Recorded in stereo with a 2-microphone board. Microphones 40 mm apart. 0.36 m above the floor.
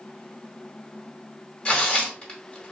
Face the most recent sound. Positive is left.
turn(degrees=25)  # may be behind; listen again after turning